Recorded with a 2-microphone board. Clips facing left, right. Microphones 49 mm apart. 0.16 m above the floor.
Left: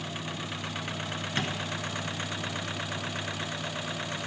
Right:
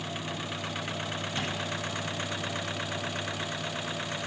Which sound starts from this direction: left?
Tapping, at 1.4 s.